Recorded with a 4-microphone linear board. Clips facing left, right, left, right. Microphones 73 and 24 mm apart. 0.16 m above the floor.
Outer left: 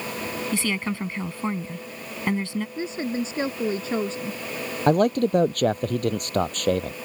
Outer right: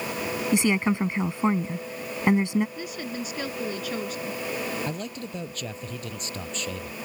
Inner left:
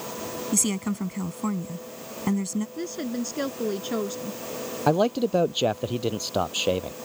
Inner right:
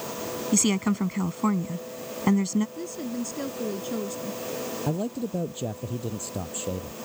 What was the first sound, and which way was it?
A woman speaking, 20° right (ahead or behind).